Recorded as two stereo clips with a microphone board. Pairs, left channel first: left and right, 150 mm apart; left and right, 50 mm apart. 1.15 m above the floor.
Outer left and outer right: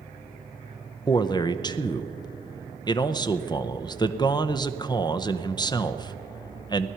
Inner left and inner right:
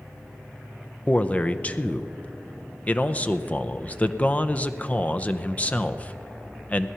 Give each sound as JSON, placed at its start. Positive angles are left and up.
{"t": 1.1, "sound": "a man speaking", "side_deg": 25, "distance_m": 0.6}